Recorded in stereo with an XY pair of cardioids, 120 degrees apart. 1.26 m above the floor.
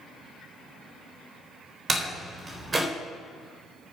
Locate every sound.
1.9 s a door slam: 25° right, 4 m